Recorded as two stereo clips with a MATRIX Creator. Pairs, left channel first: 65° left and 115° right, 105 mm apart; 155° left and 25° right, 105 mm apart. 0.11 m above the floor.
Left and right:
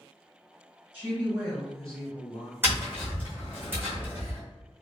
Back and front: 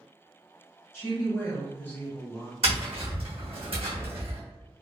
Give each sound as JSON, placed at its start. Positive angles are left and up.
{"t": 0.9, "sound": "a woman speaking", "azimuth_deg": -165, "distance_m": 1.5}
{"t": 2.6, "sound": "tapping", "azimuth_deg": -45, "distance_m": 1.3}